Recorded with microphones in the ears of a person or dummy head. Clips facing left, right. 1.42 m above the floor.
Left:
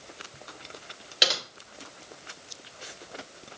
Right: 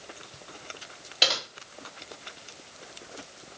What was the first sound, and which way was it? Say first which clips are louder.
Typing on a keyboard: even; 15° left (ahead or behind).